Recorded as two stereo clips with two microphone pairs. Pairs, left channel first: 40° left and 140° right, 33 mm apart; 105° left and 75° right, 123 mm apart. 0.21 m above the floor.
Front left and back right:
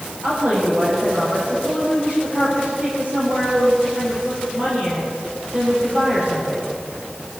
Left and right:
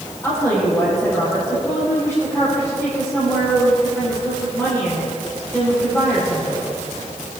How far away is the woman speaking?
About 6.5 m.